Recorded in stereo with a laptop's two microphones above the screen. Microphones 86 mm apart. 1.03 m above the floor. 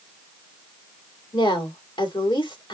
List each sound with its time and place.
1.3 s a woman speaking: 70° left (ahead or behind), 2.5 m